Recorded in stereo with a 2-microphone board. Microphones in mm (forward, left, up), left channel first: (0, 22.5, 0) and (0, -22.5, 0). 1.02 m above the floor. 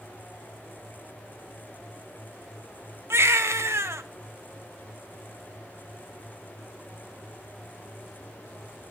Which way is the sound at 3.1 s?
65° right (ahead or behind).